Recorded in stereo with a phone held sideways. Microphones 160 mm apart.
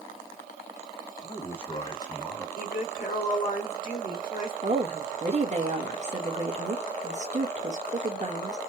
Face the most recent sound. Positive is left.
turn(degrees=-45)  # may be behind; listen again after turning